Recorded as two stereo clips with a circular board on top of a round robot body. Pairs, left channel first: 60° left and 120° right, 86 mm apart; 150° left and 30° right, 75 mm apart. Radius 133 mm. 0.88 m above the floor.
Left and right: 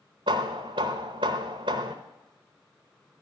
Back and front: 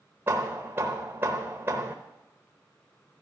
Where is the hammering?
95° right, 0.7 m.